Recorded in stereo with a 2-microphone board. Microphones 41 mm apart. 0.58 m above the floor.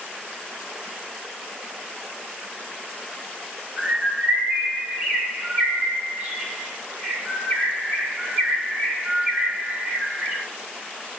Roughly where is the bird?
Right.